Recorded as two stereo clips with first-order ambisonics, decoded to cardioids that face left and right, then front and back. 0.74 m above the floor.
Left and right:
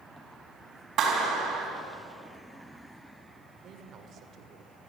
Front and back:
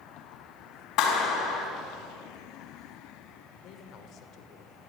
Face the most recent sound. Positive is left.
turn(degrees=-35)